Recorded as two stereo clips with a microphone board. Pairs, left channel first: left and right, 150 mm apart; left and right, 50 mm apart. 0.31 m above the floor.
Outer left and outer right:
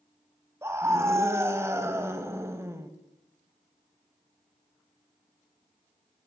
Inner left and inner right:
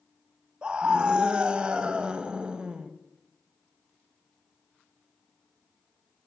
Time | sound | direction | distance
0.6 | a scream | 20° right (ahead or behind) | 1.3 m